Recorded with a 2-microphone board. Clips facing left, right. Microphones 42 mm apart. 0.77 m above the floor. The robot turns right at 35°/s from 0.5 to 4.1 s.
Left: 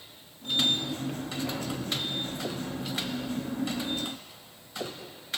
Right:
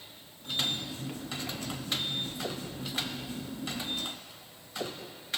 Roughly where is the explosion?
No explosion in this recording.